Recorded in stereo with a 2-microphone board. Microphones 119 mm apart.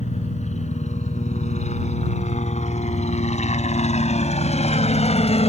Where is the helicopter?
75° left (ahead or behind); by 5.5 s 60° left (ahead or behind).